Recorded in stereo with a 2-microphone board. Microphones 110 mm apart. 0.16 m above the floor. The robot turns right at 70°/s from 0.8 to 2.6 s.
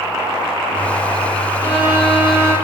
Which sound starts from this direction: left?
A violin, at 1.6 s.